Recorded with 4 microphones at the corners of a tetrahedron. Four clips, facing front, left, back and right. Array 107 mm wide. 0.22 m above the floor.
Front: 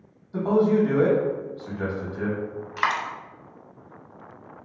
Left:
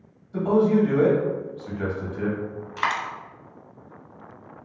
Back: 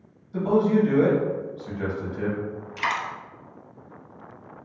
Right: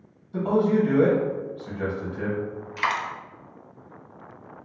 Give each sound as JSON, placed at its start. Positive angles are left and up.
{"t": 0.3, "sound": "a man speaking", "azimuth_deg": -15, "distance_m": 1.0}
{"t": 2.8, "sound": "a dropped coin", "azimuth_deg": 25, "distance_m": 0.7}